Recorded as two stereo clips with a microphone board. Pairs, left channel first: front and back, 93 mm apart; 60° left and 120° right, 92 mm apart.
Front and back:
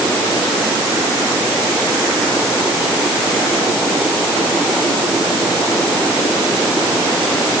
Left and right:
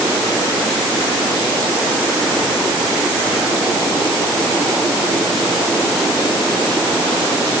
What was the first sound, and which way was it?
Only background noise.